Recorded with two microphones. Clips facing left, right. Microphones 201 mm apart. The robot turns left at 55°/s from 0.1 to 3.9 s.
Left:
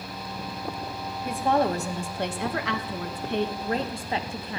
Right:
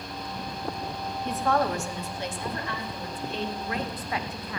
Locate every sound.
1.2 s a woman speaking: 175° left, 1.1 m; by 4.6 s 30° left, 1.1 m